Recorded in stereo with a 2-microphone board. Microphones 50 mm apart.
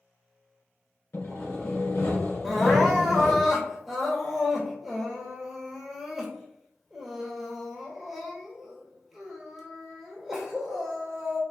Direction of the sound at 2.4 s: Centre (ahead or behind).